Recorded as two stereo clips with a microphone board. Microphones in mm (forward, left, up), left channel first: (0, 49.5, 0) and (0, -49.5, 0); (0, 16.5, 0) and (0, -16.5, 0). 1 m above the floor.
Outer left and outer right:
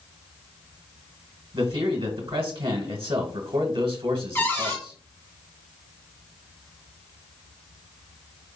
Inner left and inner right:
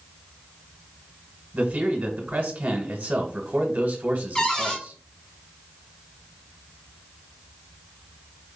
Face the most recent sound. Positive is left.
turn(degrees=25)  # may be behind; listen again after turning